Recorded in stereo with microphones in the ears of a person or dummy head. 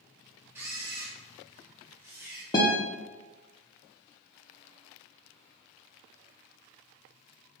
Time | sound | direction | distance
0.6 | a camera shutter | 15° right (ahead or behind) | 0.8 m
2.5 | a guitar | 15° left (ahead or behind) | 0.6 m